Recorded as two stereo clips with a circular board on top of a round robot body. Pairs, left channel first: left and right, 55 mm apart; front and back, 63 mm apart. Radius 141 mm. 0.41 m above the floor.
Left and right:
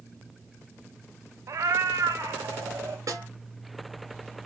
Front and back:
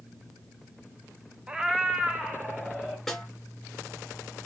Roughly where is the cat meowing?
Right.